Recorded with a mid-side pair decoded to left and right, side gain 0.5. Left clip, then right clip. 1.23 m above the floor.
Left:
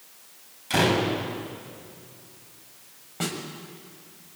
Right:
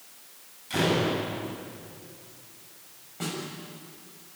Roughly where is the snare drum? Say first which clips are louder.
Left 3 dB; ahead left.